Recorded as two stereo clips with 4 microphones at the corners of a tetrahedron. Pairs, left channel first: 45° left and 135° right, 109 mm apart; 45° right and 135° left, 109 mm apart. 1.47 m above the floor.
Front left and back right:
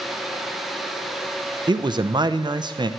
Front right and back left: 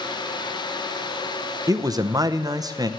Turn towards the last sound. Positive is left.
turn(degrees=-175)